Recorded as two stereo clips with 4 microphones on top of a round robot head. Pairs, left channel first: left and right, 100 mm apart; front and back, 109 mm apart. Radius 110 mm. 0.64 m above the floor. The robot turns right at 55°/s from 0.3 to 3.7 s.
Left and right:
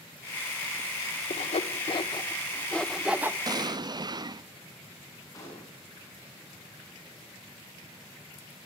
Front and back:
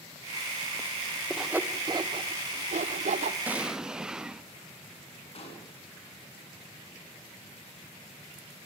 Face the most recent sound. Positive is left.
turn(degrees=30)